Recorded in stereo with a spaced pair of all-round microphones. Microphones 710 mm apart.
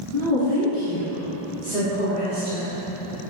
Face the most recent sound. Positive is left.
turn(degrees=65)  # may be behind; listen again after turning